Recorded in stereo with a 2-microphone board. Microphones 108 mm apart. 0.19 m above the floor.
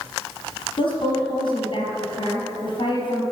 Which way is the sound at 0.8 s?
55° left (ahead or behind).